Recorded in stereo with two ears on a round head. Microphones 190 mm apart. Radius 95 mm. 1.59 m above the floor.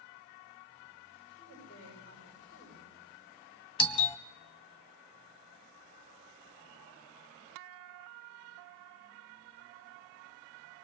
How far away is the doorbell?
About 0.8 m.